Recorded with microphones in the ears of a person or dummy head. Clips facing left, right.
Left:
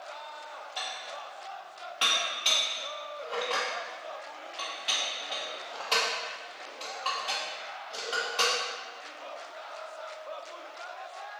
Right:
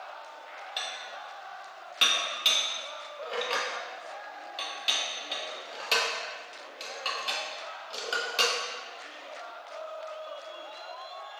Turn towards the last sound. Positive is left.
turn(degrees=-25)  # may be behind; listen again after turning